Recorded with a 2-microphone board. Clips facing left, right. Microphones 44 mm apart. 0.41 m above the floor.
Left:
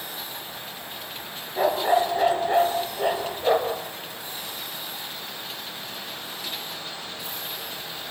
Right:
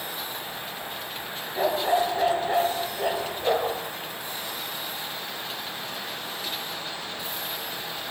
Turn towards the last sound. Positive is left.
turn(degrees=10)  # may be behind; listen again after turning